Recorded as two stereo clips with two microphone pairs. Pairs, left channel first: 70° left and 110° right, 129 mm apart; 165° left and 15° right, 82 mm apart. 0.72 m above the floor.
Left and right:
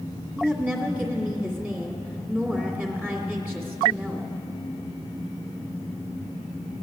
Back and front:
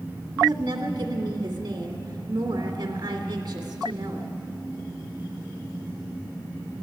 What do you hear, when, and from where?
0.4 s a woman speaking: 30° right, 1.9 m